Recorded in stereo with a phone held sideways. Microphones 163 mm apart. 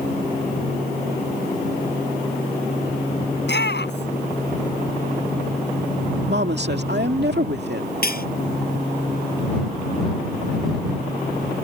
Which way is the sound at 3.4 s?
85° left.